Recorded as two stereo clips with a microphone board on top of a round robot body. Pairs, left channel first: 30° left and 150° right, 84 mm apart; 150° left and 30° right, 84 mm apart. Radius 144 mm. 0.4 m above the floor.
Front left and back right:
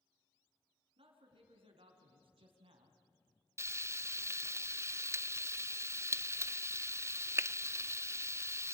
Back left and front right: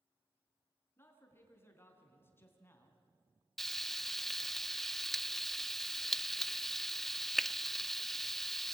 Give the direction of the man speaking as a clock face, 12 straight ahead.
5 o'clock.